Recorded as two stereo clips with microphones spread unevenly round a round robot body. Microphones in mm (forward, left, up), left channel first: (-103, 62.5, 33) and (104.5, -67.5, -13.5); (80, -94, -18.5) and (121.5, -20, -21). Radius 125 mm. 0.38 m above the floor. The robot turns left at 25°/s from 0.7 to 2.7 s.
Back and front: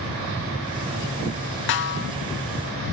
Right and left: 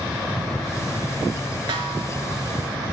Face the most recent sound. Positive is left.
turn(degrees=85)